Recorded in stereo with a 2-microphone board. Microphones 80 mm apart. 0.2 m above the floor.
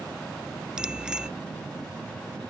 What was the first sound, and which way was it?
A bicycle bell, 10° right (ahead or behind).